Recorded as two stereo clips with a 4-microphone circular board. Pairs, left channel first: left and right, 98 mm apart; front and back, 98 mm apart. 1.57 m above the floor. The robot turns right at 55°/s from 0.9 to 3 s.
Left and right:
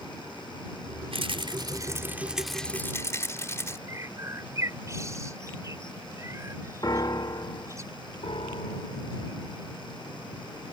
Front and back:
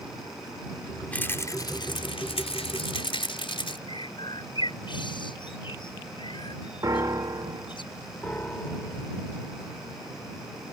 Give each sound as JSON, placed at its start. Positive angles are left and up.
{"t": 1.1, "sound": "a rattle", "azimuth_deg": -75}
{"t": 3.9, "sound": "a bird", "azimuth_deg": -30}
{"t": 6.8, "sound": "a piano", "azimuth_deg": 130}
{"t": 8.2, "sound": "a piano", "azimuth_deg": 70}